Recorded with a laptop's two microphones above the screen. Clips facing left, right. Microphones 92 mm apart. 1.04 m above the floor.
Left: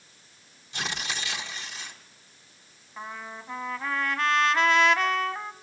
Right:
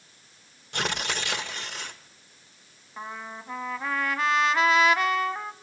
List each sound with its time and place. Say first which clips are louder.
0.7 s tearing paper: right 4 dB; 60° right (ahead or behind), 1.1 m
3.0 s a trumpet: right 1 dB; 10° right (ahead or behind), 1.0 m